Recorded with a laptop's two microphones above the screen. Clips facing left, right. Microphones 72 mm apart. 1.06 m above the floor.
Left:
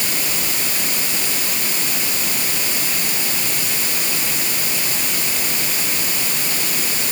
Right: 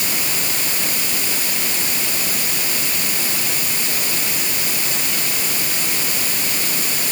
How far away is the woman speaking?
No woman speaking in this recording.